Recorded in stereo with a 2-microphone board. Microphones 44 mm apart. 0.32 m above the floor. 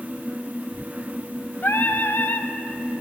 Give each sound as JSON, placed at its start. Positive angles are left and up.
{"t": 1.6, "sound": "singing", "side_deg": 55, "distance_m": 0.5}